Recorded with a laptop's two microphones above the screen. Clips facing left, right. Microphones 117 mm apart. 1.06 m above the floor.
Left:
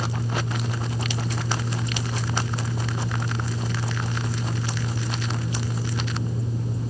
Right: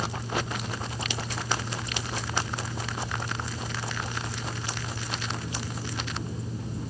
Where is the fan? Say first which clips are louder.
Left 2 dB; 45° left (ahead or behind), 1.2 m.